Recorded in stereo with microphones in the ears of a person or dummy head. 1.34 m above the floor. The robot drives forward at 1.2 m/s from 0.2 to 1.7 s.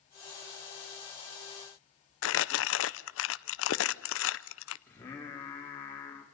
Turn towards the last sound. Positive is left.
turn(degrees=15)  # may be behind; listen again after turning